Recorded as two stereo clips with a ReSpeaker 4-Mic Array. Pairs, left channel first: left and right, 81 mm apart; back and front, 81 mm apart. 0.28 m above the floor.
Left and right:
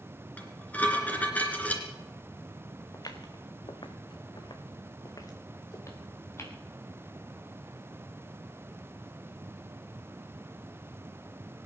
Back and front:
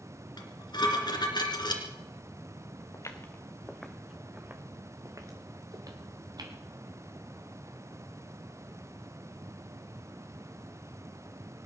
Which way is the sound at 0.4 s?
160° left.